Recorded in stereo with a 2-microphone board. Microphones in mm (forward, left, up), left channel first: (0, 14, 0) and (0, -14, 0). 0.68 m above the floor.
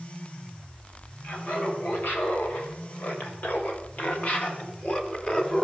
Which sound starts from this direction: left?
Laughter, at 1.2 s.